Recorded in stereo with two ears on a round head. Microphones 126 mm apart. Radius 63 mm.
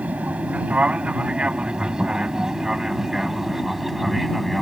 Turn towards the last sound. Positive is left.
turn(degrees=0)  # may be behind; listen again after turning